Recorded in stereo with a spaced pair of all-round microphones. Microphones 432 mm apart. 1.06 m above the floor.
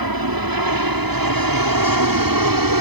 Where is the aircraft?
55° right (ahead or behind); by 2.8 s 50° right (ahead or behind).